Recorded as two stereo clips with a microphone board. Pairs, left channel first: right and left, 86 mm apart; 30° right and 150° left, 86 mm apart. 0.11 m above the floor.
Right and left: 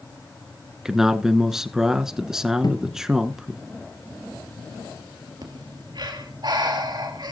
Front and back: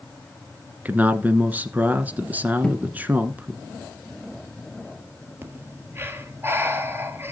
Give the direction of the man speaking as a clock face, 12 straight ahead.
7 o'clock.